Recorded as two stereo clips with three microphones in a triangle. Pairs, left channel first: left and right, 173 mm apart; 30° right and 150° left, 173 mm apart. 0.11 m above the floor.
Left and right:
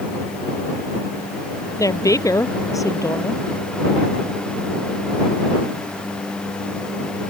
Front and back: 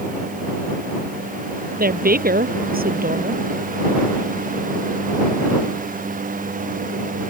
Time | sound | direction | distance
1.8 | a woman speaking | 160° left | ?